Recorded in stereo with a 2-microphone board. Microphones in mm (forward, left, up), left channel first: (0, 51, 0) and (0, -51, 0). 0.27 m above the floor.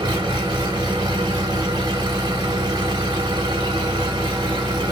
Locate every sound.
0.0 s an engine running: 50° right (ahead or behind), 1.6 m